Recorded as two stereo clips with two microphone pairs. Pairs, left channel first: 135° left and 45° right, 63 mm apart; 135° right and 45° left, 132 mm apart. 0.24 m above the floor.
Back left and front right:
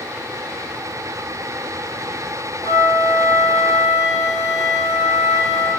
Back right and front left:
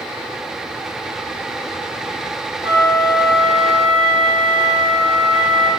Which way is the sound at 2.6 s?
105° left.